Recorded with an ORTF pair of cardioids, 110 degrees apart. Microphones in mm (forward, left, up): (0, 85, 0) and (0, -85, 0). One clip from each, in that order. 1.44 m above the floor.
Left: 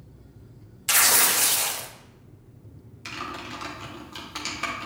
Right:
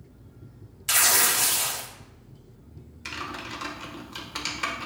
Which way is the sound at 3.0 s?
Straight ahead.